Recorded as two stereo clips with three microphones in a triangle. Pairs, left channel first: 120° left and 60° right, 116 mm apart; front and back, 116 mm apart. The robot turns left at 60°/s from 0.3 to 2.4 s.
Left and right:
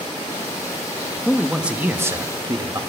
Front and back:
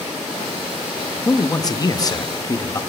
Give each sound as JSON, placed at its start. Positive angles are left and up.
{"t": 1.2, "sound": "a man speaking", "azimuth_deg": 40, "distance_m": 0.6}